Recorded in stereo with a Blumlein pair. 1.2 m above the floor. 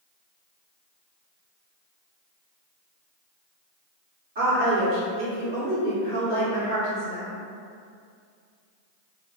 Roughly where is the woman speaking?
Ahead right.